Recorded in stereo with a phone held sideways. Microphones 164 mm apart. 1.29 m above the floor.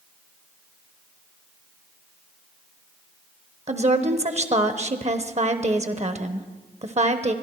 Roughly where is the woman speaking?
Right.